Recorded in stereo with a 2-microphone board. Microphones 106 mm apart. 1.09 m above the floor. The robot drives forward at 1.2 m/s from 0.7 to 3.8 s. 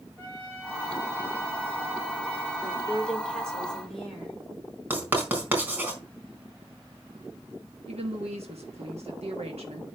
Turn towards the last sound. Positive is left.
turn(degrees=-75)  # may be behind; listen again after turning